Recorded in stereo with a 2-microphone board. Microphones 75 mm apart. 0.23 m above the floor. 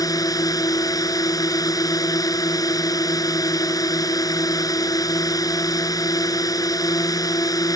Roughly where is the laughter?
I don't hear laughter.